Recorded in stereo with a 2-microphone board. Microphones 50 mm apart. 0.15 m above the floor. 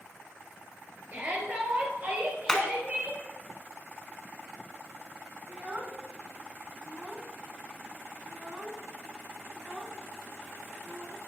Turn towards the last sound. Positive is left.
turn(degrees=-30)  # may be behind; listen again after turning